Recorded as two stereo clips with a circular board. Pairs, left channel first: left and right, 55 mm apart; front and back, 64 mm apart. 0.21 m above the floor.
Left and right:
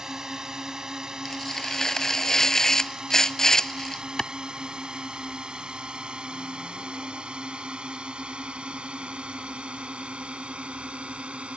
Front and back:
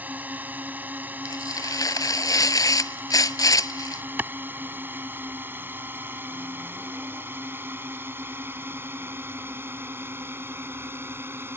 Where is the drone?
160° right; by 11.6 s 150° right.